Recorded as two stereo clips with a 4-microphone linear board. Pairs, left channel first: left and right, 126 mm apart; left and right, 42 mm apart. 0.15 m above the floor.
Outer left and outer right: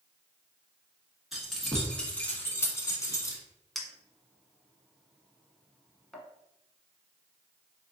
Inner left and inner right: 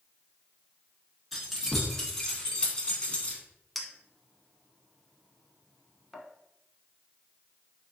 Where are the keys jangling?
Centre (ahead or behind), 1.2 m; by 3.4 s 30° left (ahead or behind), 1.0 m.